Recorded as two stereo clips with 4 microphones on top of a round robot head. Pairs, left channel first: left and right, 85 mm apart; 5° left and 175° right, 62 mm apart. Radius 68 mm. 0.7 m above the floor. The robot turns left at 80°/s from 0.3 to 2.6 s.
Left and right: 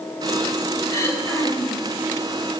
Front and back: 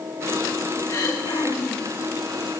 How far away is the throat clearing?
About 2.5 m.